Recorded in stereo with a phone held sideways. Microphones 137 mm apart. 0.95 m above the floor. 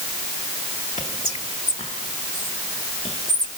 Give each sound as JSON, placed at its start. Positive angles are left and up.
{"t": 1.0, "sound": "whispering", "side_deg": 45, "distance_m": 1.2}